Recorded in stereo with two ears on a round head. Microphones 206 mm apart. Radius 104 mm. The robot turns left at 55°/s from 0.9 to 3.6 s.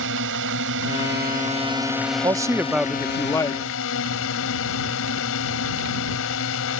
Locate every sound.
0.0 s a drone: 110° right; by 6.8 s 100° left
2.2 s a man speaking: 145° right; by 3.6 s 140° left